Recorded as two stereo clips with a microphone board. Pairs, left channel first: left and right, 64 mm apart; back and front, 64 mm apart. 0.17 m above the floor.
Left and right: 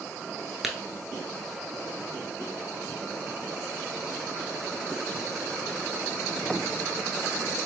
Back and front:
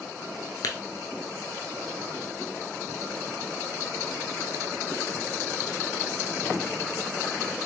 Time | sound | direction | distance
0.6 | tapping | 175° right | 0.7 m